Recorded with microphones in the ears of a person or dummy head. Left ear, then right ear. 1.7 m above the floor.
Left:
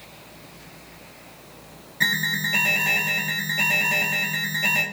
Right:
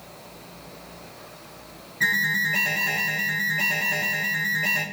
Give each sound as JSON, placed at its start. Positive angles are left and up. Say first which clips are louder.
{"t": 2.0, "sound": "an alarm", "louder": "right 1 dB", "side_deg": 65, "distance_m": 3.0}